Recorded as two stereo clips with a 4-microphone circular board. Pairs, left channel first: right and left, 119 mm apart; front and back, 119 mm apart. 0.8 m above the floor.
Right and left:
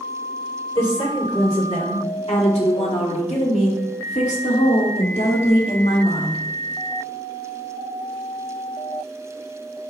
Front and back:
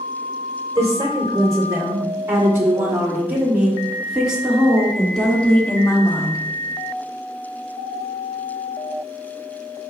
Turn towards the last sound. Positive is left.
turn(degrees=-55)